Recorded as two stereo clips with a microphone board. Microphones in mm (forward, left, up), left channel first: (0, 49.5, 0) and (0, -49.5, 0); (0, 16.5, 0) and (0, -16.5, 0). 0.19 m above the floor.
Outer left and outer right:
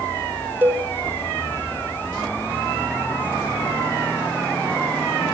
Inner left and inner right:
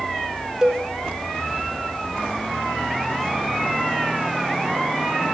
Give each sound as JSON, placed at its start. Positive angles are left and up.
{"t": 0.6, "sound": "a cowbell", "side_deg": -20, "distance_m": 0.8}